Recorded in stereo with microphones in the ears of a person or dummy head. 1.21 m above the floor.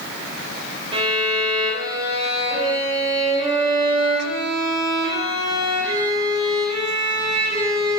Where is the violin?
30° right (ahead or behind), 3.5 m.